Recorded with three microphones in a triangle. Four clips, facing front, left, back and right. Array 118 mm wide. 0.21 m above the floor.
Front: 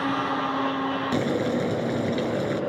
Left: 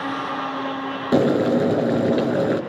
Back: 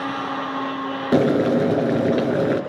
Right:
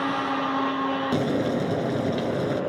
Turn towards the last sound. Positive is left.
turn(degrees=145)